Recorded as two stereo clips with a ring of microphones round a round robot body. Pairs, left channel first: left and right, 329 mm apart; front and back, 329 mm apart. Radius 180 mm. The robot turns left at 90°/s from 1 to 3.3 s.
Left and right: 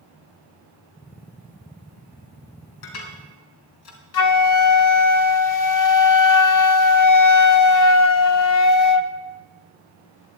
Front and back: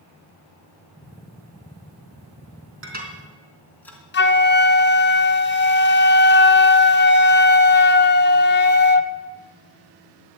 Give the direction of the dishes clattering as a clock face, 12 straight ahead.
8 o'clock.